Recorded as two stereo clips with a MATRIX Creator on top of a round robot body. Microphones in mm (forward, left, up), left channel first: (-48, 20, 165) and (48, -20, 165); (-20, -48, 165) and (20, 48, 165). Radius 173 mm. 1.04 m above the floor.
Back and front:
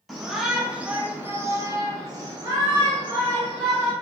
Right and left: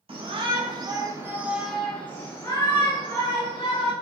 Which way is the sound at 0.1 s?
65° left.